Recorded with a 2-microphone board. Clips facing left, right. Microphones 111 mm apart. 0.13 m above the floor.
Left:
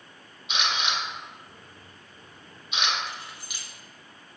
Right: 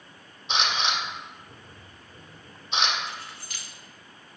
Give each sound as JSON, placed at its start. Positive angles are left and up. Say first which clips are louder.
{"t": 0.5, "sound": "a camera shutter", "louder": "right 2 dB", "side_deg": -35, "distance_m": 2.0}
{"t": 3.1, "sound": "keys jangling", "louder": "even", "side_deg": 15, "distance_m": 1.6}